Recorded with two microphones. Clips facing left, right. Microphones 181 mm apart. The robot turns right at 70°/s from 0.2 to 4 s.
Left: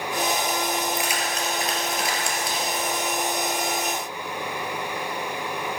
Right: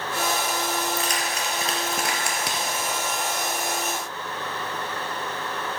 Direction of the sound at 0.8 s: 30° left (ahead or behind).